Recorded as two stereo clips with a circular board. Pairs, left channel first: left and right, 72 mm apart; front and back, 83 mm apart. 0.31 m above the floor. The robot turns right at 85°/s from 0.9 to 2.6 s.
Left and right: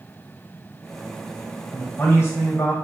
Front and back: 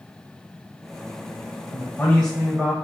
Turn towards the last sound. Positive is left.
turn(degrees=105)